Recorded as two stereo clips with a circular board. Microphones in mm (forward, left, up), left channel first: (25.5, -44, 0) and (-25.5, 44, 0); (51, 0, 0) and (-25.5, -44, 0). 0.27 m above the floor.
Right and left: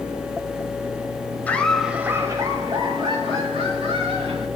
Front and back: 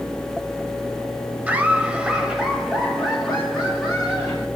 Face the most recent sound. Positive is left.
turn(degrees=115)